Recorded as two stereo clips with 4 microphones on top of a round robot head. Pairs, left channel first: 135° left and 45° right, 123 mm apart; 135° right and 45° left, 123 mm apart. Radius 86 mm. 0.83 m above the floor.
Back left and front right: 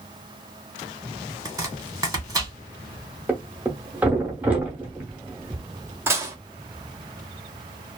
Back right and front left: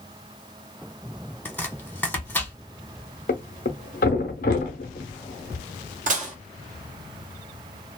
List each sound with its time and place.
1.4 s chopping: 70° right, 1.1 m
3.3 s a thud: 125° right, 0.5 m
6.1 s dishes clattering: 25° left, 0.9 m